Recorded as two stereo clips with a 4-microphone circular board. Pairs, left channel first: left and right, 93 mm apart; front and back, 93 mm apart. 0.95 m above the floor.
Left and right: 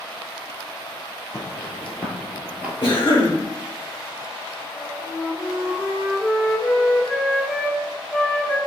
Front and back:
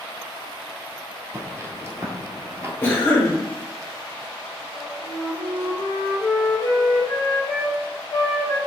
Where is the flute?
Straight ahead, 1.0 m.